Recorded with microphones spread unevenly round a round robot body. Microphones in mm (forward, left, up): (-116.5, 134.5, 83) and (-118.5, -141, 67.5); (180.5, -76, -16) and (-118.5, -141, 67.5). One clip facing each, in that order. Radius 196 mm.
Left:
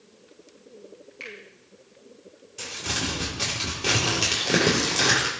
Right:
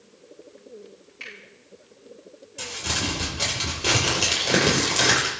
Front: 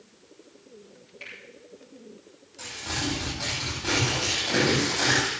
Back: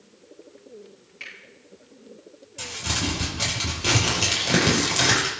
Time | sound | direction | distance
1.2 | a finger snap | 145° left | 7 m
2.6 | crumpling | 175° left | 6.5 m